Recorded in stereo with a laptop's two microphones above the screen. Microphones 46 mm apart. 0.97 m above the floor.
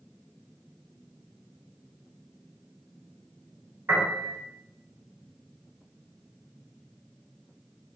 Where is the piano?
60° right (ahead or behind), 2 m.